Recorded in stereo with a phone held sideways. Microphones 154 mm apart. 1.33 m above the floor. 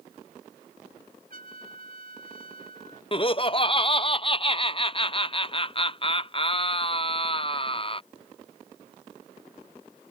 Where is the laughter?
35° left (ahead or behind).